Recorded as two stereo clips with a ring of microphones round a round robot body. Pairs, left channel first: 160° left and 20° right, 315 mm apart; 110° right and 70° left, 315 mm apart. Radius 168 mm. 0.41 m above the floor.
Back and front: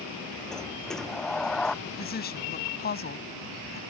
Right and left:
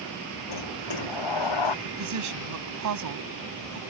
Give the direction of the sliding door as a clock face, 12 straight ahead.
4 o'clock.